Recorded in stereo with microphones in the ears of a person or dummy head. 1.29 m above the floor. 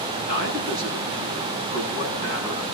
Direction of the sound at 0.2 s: 70° left (ahead or behind).